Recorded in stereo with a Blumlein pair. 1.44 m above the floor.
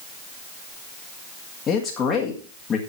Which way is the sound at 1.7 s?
25° left.